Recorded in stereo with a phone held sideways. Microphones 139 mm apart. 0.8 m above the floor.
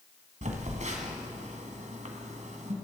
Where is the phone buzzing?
65° right (ahead or behind), 1.7 m.